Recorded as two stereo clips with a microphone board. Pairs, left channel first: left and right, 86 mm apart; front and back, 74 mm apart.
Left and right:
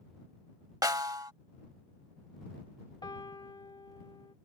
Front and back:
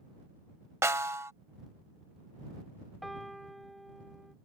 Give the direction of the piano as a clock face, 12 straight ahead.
9 o'clock.